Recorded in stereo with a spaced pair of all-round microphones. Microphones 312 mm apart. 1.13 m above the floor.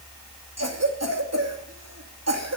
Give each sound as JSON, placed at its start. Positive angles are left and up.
{"t": 0.6, "sound": "a cough", "side_deg": -55, "distance_m": 2.5}